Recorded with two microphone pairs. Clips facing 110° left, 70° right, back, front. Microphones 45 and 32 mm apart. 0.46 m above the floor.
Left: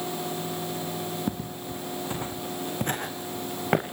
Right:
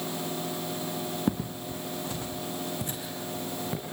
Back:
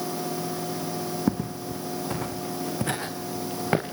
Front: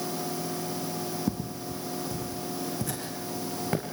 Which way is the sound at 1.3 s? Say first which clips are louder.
Right 2 dB, back 5 dB; 145° right.